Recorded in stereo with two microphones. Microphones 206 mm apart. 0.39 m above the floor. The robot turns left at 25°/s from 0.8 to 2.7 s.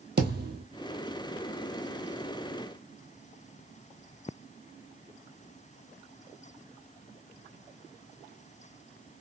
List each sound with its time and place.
0.2 s a thud: 55° right (ahead or behind), 1.1 m